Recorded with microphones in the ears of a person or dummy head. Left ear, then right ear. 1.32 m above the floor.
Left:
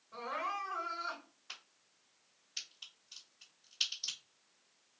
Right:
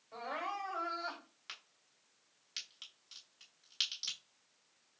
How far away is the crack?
About 1.3 m.